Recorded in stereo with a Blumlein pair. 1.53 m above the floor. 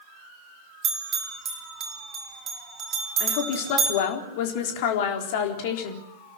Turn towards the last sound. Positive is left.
turn(degrees=50)